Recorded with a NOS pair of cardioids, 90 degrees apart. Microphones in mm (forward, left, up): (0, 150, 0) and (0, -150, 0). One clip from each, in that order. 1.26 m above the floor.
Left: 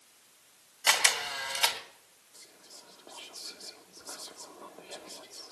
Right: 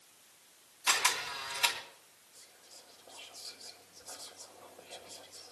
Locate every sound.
0.9 s a camera shutter: 70° left, 2 m
2.3 s whispering: 60° left, 1.2 m